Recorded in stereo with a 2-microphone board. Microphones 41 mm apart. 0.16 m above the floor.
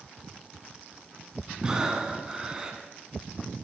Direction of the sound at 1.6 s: 20° right (ahead or behind).